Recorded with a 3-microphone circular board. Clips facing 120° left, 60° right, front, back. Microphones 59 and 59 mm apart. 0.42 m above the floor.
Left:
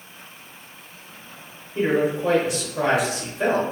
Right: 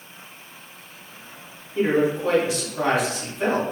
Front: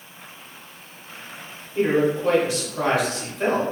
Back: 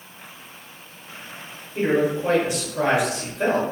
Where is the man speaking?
145° left, 1.2 m.